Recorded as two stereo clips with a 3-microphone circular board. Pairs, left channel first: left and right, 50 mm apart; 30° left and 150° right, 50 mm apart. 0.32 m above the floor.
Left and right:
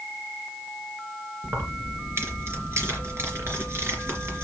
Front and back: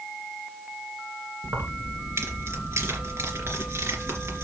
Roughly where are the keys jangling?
Behind right.